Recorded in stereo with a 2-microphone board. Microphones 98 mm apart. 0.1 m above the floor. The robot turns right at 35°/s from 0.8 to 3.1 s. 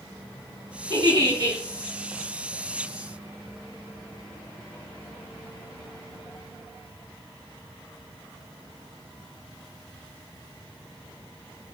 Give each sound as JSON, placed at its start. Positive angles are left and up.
{"t": 0.9, "sound": "a giggle", "side_deg": -50, "distance_m": 4.5}